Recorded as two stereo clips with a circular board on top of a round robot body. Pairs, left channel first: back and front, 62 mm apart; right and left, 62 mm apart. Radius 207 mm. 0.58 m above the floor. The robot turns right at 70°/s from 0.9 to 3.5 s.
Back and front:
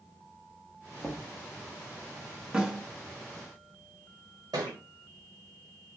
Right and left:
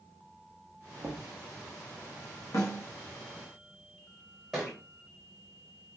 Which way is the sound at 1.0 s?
90° left.